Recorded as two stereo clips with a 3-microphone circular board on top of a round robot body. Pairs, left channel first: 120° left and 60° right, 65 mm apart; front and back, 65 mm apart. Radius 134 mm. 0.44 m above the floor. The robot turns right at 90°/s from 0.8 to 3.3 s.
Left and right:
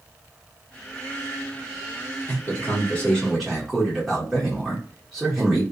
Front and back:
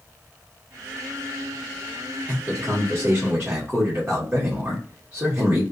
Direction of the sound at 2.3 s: 125° left.